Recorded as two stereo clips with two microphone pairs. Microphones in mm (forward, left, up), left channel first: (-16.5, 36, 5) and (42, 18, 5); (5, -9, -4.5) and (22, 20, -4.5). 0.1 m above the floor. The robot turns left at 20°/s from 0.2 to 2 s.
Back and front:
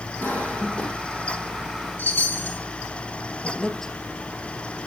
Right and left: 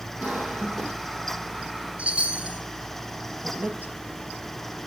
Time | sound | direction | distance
0.2 | a cough | 105° left | 3.5 m
2.0 | a chime | 110° left | 2 m
3.4 | a woman speaking | 80° left | 2.5 m